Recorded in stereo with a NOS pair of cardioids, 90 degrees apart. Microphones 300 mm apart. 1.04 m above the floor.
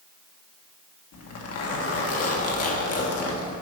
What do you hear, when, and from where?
1.1 s a zipper: 55° left, 1.5 m